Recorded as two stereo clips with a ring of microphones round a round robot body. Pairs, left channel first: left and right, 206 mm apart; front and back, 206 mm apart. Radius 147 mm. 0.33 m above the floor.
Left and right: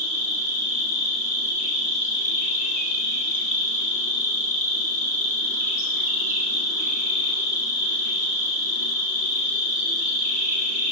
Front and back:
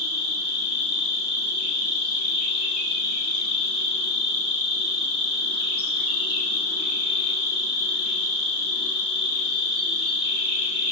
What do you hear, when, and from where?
0.0 s an insect: 115° right, 3 m